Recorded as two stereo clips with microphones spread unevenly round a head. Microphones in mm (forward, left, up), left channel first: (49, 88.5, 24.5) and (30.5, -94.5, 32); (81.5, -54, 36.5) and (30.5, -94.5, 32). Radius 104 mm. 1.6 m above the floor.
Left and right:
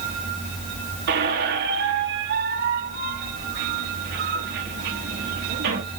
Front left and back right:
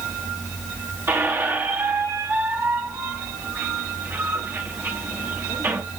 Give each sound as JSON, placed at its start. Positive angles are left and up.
{"t": 1.1, "sound": "a squeak", "azimuth_deg": -90, "distance_m": 1.3}